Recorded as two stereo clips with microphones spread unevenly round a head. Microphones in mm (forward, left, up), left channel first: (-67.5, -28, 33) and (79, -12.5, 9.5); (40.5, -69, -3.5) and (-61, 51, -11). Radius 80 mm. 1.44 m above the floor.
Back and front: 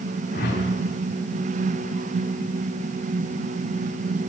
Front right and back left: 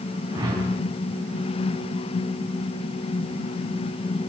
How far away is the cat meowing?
No cat meowing in this recording.